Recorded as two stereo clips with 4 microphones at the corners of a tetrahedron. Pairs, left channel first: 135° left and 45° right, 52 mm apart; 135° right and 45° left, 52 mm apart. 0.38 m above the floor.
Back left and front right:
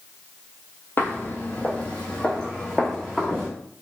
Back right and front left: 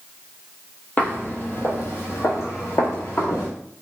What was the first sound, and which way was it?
Footsteps, 175° left.